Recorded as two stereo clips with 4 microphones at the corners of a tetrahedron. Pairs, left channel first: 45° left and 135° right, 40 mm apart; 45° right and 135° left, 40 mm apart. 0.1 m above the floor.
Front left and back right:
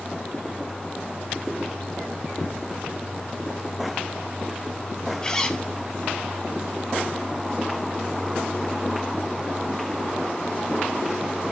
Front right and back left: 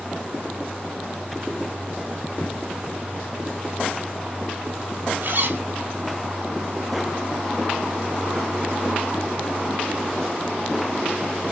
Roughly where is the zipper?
Left.